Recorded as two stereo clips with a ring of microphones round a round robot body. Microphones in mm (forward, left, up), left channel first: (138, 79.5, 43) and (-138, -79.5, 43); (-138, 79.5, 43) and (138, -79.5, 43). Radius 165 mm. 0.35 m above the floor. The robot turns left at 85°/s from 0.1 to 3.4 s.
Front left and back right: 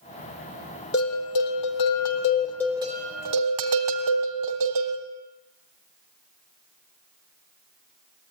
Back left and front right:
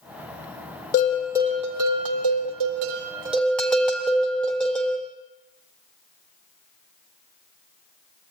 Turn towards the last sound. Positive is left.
turn(degrees=-125)